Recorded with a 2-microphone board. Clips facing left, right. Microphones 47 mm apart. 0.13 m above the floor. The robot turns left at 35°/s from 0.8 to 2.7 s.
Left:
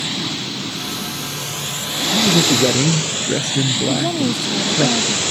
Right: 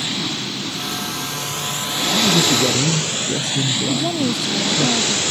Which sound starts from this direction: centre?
A woman speaking, at 3.9 s.